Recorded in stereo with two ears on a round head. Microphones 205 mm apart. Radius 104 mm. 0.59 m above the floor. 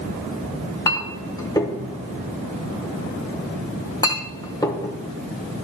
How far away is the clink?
About 1.3 m.